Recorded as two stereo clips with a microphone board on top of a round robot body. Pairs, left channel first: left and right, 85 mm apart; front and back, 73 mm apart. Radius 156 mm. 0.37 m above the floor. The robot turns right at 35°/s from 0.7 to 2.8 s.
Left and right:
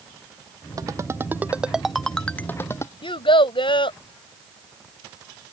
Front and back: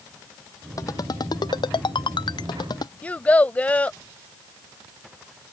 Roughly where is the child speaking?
Left.